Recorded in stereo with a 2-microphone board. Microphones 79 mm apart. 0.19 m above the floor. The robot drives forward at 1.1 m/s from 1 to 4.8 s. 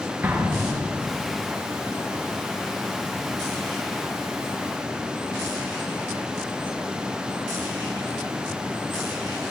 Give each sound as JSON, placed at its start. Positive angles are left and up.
{"t": 0.2, "sound": "an explosion", "side_deg": -25, "distance_m": 3.0}